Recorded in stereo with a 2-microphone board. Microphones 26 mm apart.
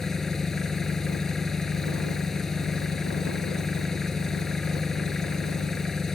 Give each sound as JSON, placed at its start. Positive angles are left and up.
{"t": 0.0, "sound": "an engine running", "side_deg": 20}